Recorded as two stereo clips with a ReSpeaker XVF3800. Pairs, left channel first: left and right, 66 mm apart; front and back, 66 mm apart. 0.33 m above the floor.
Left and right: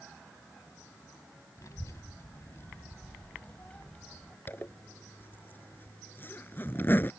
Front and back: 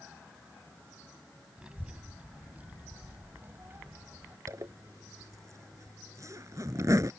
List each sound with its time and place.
1.6 s a child speaking: 110° left; by 4.4 s 165° left
4.5 s a zipper: 145° left